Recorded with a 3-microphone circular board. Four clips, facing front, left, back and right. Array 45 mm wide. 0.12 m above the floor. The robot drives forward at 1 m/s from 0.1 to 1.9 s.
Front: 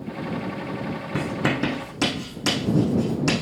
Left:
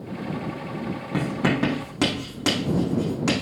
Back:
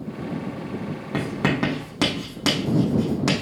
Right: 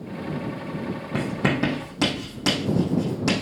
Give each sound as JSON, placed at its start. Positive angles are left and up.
{"t": 1.1, "sound": "writing", "azimuth_deg": 160, "distance_m": 3.5}